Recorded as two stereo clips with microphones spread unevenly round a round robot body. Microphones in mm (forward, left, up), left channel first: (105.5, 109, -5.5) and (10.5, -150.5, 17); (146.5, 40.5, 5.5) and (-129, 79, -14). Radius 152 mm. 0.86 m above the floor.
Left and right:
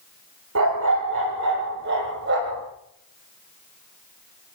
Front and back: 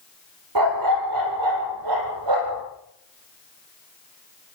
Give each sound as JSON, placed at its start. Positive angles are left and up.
{"t": 0.6, "sound": "a dog barking", "azimuth_deg": -160, "distance_m": 8.0}